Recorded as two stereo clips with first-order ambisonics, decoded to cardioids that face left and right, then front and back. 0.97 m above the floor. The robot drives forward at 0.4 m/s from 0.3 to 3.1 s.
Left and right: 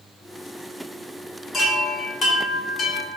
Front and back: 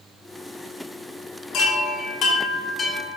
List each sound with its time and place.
1.5 s a chime: 25° left, 1.0 m; by 3.2 s 85° left, 0.7 m